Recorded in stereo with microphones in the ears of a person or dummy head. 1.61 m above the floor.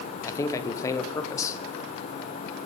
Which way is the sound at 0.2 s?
20° left (ahead or behind).